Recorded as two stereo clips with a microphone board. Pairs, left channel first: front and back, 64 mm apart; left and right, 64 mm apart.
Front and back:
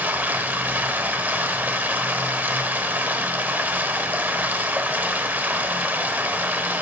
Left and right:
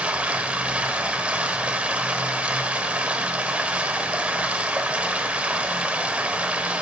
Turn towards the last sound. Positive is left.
turn(degrees=-145)